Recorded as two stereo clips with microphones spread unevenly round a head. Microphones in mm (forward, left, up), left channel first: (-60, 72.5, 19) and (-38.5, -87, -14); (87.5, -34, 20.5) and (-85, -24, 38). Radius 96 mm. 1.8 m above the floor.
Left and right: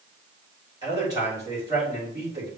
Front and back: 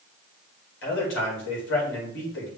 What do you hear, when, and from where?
0.8 s a man speaking: 10° right, 3 m